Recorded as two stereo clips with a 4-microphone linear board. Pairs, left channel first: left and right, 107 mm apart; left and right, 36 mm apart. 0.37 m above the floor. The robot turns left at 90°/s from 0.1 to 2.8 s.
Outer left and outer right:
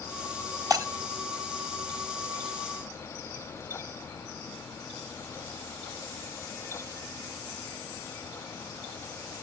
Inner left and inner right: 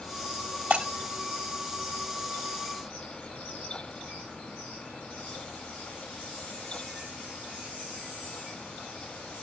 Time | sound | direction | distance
0.7 | breaking glass | 35° right (ahead or behind) | 1.2 m